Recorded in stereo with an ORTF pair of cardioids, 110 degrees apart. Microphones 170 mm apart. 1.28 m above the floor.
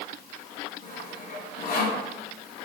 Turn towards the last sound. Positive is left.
turn(degrees=60)